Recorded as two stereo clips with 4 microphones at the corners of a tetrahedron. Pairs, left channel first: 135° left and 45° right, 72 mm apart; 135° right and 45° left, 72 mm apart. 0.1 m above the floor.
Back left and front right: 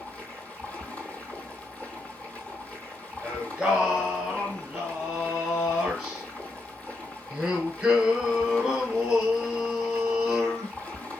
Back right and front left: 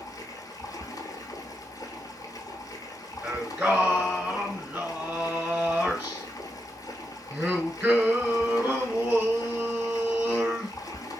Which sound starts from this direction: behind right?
Running water, at 0.0 s.